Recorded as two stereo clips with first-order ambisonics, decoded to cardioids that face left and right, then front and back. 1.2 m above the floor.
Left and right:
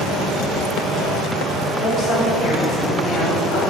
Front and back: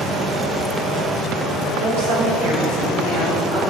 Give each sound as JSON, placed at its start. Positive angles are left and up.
{"t": 1.8, "sound": "a woman speaking", "azimuth_deg": 160, "distance_m": 3.5}